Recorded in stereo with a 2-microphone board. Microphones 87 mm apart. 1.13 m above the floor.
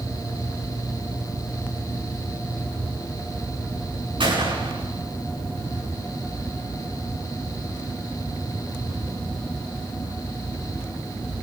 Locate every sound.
4.2 s a gunshot: 80° right, 8.5 m